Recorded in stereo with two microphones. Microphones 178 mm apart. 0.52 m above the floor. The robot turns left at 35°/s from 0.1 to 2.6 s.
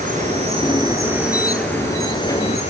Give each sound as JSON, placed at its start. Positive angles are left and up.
{"t": 0.0, "sound": "an insect", "azimuth_deg": -130, "distance_m": 8.5}